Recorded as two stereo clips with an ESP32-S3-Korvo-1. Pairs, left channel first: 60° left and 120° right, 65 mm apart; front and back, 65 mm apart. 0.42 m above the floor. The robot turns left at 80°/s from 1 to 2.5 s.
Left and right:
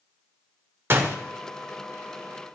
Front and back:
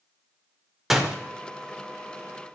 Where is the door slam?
95° right, 0.6 m; by 1.2 s 110° right, 0.6 m.